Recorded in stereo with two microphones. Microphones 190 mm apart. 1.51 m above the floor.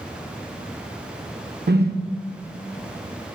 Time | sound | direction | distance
1.7 | a whoosh | 60° right (ahead or behind) | 0.7 m